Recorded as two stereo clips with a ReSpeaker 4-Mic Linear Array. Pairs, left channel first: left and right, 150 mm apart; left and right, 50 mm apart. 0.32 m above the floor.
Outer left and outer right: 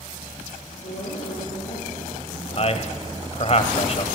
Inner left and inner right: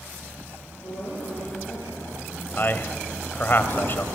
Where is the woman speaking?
80° left, 6.5 m; by 3.2 s 70° left (ahead or behind), 7 m.